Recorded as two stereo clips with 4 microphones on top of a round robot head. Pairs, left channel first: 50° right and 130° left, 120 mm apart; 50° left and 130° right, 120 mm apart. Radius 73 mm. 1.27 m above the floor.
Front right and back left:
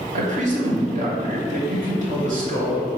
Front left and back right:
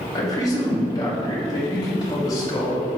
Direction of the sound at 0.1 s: 115° left.